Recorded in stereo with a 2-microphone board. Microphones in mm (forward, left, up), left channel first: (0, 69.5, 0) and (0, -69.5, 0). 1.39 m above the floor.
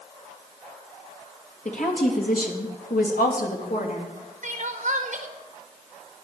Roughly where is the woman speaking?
Left.